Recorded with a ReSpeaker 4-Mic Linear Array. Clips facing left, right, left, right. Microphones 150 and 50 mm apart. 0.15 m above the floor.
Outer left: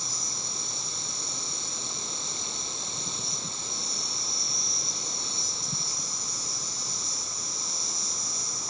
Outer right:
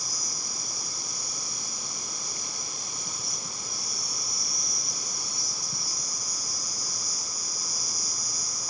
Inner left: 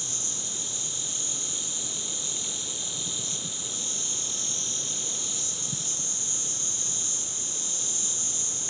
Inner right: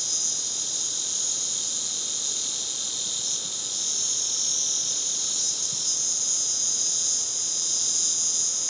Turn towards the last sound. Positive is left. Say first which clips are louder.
# outer left 1 dB, even
turn(degrees=25)  # may be behind; listen again after turning